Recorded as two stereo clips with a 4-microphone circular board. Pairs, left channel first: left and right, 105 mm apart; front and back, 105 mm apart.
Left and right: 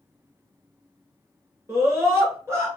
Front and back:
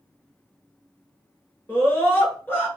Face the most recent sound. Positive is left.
turn(degrees=-50)